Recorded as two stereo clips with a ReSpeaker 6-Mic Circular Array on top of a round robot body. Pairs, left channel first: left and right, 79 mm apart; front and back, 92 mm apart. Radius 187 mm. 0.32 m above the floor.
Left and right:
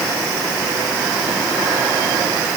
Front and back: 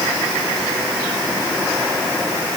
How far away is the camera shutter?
I don't hear a camera shutter.